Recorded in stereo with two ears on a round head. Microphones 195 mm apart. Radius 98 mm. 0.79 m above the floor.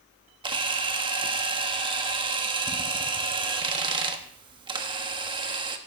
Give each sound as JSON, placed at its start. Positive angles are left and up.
{"t": 0.4, "sound": "a camera shutter", "side_deg": -20, "distance_m": 1.1}